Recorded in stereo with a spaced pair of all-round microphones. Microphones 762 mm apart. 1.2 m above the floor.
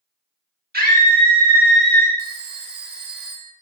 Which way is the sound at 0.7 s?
10° right (ahead or behind).